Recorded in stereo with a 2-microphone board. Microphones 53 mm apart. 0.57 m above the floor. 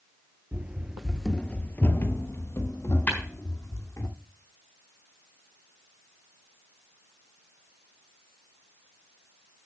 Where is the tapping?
30° left (ahead or behind), 4.5 m.